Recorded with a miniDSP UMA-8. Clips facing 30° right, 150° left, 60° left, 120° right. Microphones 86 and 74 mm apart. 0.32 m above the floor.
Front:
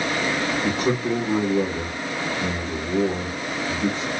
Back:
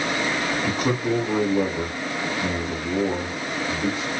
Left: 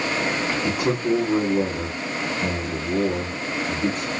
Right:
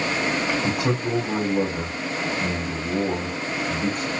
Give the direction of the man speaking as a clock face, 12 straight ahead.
5 o'clock.